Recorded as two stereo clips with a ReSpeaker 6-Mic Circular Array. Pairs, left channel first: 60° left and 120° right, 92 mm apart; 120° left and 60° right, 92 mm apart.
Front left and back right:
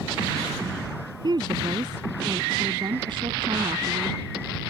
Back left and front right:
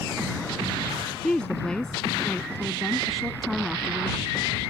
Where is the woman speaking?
160° right; by 4.2 s 145° right.